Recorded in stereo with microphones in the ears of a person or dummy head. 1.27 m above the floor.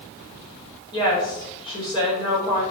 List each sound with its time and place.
0.9 s a woman speaking: 25° left (ahead or behind), 2 m